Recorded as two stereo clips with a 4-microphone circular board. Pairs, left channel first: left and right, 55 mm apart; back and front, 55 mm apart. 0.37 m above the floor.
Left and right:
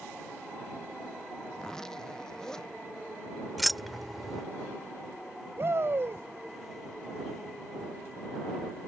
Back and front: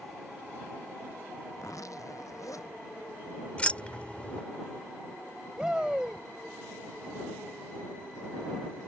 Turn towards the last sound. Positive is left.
turn(degrees=-75)